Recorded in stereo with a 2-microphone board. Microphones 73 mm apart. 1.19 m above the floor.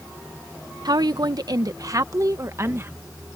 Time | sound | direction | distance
0.8 | a woman speaking | 65° right (ahead or behind) | ?